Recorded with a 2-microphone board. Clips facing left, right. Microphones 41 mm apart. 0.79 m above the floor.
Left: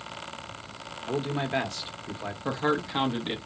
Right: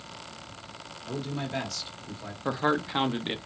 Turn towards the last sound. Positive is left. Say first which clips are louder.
# right 1 dB
turn(degrees=-10)  # may be behind; listen again after turning